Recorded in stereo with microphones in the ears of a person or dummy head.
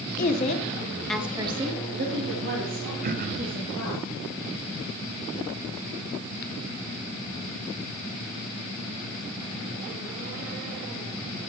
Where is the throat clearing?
50° right (ahead or behind), 0.6 m.